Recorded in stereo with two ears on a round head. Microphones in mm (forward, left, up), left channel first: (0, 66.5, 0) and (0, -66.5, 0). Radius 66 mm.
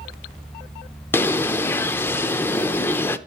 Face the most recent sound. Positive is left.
turn(degrees=15)  # may be behind; listen again after turning